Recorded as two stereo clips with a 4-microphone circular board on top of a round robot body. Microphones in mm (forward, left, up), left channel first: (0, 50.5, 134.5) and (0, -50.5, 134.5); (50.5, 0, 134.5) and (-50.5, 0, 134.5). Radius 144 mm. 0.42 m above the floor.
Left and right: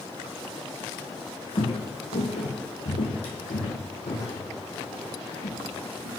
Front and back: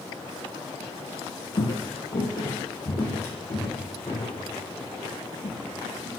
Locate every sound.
1.6 s footsteps: 45° left, 0.7 m; by 6.1 s 70° left, 3 m